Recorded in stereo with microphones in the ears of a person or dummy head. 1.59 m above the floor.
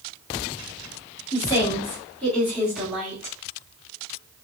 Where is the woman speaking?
20° left (ahead or behind), 1.9 m; by 3.4 s 20° right (ahead or behind), 1.3 m.